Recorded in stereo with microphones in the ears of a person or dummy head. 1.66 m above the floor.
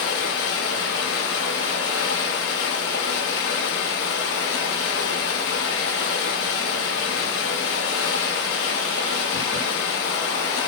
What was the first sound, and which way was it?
Running water, 65° left (ahead or behind).